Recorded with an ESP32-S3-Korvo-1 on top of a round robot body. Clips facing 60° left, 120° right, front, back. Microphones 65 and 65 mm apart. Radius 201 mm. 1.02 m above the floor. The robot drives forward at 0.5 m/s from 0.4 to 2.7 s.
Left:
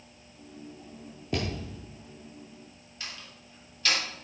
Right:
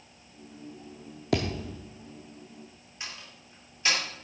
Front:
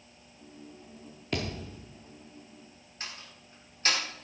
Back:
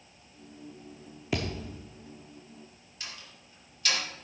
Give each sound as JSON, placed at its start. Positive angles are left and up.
{"t": 1.3, "sound": "a thud", "azimuth_deg": -95, "distance_m": 0.6}
{"t": 3.0, "sound": "a door slam", "azimuth_deg": -55, "distance_m": 3.0}